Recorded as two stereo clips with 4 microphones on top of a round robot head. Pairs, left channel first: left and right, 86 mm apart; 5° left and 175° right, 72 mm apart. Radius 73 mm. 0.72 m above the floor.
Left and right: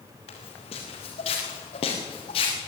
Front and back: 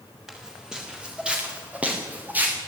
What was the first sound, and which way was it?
Footsteps, 105° left.